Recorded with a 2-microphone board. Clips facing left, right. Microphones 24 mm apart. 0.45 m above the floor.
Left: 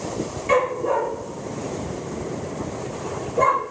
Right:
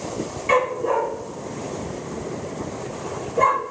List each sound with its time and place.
0.5 s a dog barking: 20° right (ahead or behind), 4 m